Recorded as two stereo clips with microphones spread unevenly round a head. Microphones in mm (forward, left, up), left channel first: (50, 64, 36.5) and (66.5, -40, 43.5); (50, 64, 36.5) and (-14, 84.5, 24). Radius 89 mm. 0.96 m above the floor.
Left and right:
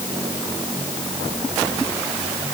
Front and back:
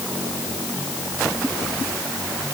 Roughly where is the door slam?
I don't hear a door slam.